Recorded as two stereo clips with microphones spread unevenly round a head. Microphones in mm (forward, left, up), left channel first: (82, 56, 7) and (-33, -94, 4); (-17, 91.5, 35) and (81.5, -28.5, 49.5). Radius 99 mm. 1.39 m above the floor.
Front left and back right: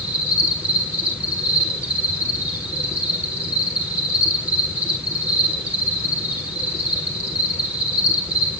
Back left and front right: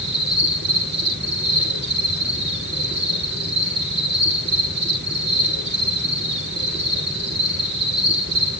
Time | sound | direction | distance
0.0 | an insect | 45° right | 7 m